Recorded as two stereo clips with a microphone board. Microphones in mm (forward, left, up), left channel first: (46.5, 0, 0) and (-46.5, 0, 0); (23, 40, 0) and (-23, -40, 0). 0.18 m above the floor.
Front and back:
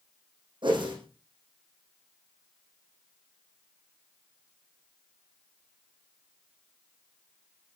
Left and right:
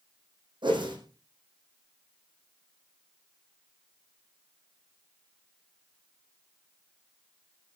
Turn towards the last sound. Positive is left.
turn(degrees=-150)